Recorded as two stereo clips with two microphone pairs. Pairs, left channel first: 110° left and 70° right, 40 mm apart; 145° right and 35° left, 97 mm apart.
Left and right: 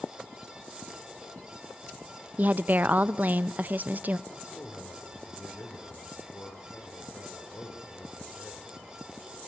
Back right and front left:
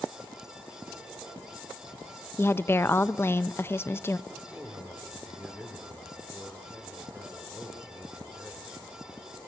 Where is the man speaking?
115° left, 3 m.